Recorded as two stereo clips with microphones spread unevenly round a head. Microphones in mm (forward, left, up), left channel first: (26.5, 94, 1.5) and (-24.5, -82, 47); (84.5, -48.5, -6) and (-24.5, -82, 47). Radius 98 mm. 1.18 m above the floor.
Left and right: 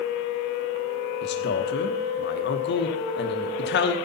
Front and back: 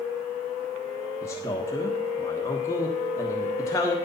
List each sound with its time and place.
1.2 s a man speaking: 75° left, 1.2 m